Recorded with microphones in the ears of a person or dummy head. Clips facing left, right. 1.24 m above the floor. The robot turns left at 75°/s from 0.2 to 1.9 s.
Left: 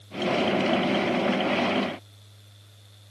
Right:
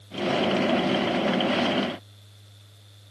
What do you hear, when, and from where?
Only background noise.